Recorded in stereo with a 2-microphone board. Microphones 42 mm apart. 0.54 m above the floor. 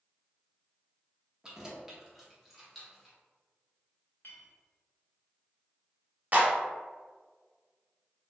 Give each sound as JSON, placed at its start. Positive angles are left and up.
{"t": 1.4, "sound": "keys jangling", "side_deg": -15, "distance_m": 0.6}
{"t": 4.2, "sound": "a clink", "side_deg": 60, "distance_m": 1.1}
{"t": 6.3, "sound": "a clap", "side_deg": -40, "distance_m": 0.9}